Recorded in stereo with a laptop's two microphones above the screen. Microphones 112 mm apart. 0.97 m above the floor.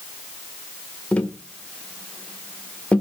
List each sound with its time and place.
1.1 s tapping: 10° left (ahead or behind), 1.2 m